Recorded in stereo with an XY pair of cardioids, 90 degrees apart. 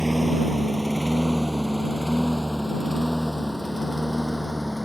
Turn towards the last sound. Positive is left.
turn(degrees=10)